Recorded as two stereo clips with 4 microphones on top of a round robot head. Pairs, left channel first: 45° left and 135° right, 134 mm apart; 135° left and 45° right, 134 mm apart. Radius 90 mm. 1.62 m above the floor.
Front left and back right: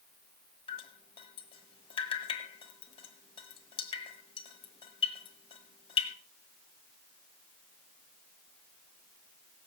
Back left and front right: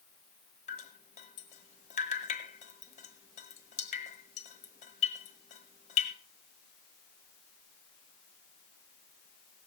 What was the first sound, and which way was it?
Dripping, 95° left.